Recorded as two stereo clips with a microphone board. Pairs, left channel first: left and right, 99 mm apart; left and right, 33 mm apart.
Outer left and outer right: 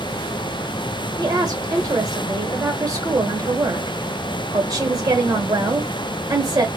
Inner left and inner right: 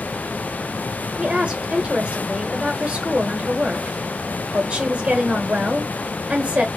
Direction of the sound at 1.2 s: 30° right (ahead or behind).